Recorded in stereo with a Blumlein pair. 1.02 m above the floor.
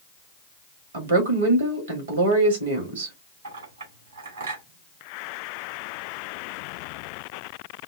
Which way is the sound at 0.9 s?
70° right.